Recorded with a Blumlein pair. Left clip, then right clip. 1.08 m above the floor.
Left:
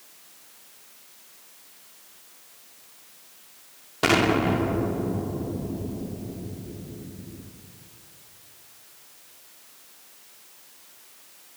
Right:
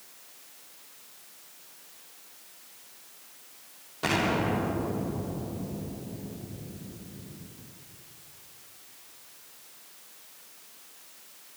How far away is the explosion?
About 2 m.